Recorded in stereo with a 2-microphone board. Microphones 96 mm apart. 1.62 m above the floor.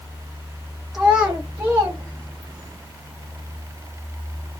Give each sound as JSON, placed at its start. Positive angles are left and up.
{"t": 0.9, "sound": "a child speaking", "side_deg": -5, "distance_m": 0.9}